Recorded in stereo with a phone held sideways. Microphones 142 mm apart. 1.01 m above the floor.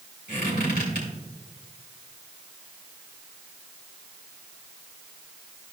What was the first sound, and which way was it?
A squeak, 80° left.